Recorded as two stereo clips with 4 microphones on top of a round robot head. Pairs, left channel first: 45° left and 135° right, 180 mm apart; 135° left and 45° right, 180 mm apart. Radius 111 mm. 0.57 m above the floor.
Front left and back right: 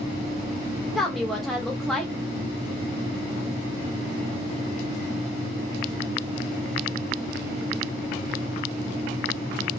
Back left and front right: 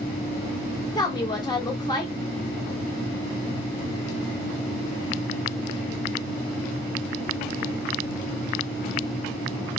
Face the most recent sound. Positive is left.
turn(degrees=135)